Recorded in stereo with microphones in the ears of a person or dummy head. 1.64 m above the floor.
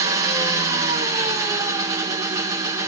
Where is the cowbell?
I don't hear a cowbell.